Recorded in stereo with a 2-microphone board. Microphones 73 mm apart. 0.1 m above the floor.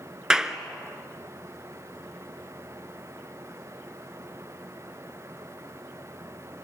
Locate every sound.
0.3 s a clap: 10° right (ahead or behind), 1.1 m